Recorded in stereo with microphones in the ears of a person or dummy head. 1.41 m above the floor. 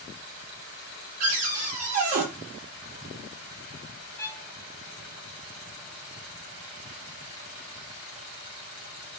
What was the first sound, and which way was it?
A cupboard door, 40° right (ahead or behind).